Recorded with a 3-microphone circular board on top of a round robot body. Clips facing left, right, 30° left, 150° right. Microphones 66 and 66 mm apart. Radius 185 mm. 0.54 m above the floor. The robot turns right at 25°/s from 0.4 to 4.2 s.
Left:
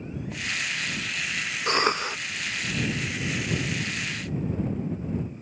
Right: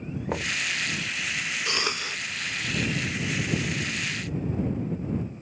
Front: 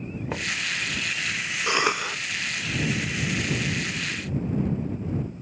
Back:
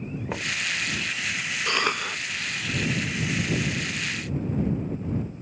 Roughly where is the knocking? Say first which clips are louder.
Right 3 dB, front 1 dB; ahead right.